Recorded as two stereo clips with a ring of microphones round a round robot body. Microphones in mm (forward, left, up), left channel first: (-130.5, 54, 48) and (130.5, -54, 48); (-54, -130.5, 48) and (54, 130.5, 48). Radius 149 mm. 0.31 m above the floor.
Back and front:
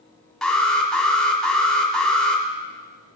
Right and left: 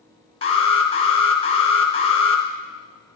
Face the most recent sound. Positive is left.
turn(degrees=-115)